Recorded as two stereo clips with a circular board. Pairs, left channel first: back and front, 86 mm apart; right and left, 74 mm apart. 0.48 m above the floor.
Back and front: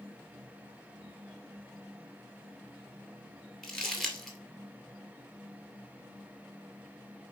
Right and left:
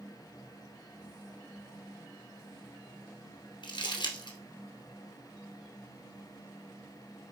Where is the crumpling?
95° right, 2 m.